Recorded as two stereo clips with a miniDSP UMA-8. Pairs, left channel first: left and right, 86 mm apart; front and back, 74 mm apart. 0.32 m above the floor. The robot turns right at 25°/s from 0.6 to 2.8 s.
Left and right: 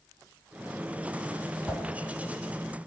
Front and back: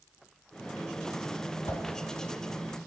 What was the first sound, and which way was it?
A whoosh, 5° left.